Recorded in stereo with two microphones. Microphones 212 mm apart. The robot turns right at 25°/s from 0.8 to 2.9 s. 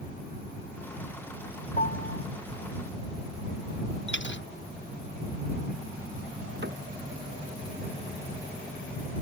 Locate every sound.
1.8 s a piano: 40° left (ahead or behind); by 2.2 s 55° left (ahead or behind)
4.1 s a dropped coin: 60° left (ahead or behind)
6.6 s a cupboard door: 60° right (ahead or behind)